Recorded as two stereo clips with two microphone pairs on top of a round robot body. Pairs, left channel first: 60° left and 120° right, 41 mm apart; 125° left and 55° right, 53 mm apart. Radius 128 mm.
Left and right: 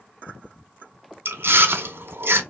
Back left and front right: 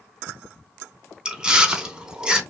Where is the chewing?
125° right, 1.0 m.